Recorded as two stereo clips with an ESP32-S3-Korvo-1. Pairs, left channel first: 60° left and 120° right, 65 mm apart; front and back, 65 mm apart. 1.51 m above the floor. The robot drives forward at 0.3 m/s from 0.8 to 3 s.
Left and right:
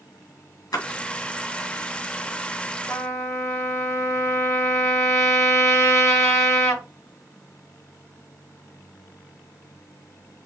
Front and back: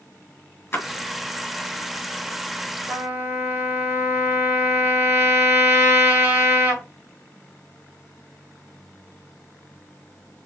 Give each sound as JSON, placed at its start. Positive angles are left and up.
{"t": 0.7, "sound": "a splash", "azimuth_deg": 60, "distance_m": 1.8}
{"t": 2.9, "sound": "a trumpet", "azimuth_deg": 110, "distance_m": 3.0}